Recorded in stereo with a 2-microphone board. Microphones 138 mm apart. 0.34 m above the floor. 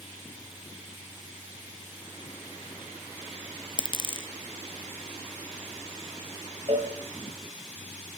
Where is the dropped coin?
35° left (ahead or behind), 1.1 m.